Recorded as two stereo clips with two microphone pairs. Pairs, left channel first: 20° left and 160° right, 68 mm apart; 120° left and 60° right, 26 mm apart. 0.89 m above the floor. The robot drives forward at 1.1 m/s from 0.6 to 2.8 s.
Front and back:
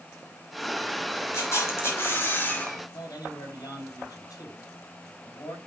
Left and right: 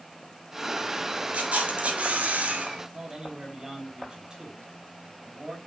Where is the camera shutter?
25° right, 3 m; by 2.8 s 50° right, 1.6 m.